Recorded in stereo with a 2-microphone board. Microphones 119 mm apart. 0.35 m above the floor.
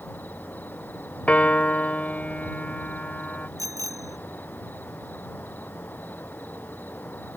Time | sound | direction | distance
0.0 | an insect | 15° left (ahead or behind) | ?
1.3 | a piano | 10° left (ahead or behind) | ?
3.6 | a bicycle bell | 30° right (ahead or behind) | ?